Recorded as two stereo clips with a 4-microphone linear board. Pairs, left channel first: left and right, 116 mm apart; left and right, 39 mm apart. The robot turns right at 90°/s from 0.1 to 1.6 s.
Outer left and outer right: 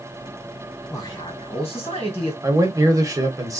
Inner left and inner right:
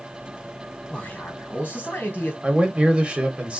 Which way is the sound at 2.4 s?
30° right (ahead or behind).